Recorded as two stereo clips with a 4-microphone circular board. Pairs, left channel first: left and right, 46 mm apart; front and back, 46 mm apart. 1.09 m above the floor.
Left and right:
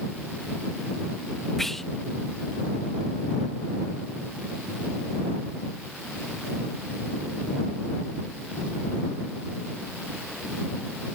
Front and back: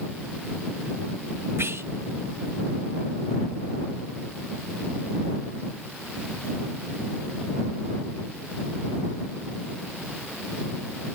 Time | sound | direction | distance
1.6 | whispering | 175° left | ?